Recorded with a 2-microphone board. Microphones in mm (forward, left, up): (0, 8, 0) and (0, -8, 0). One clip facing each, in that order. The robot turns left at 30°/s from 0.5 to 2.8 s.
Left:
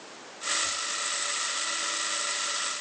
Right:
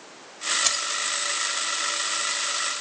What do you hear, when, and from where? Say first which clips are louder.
0.6 s keys jangling: right 6 dB; 65° right (ahead or behind), 1.3 m; by 0.9 s 70° right (ahead or behind), 1.3 m